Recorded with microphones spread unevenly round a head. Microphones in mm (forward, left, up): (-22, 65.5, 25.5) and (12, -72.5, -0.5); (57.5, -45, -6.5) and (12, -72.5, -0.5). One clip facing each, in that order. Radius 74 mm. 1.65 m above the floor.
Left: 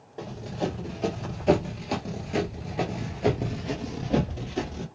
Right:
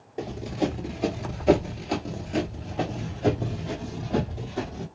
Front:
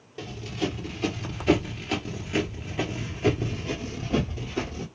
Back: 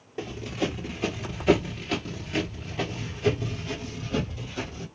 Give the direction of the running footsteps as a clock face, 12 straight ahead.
5 o'clock.